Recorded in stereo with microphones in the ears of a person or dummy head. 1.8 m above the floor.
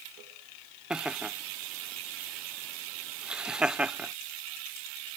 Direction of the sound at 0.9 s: 5° right (ahead or behind).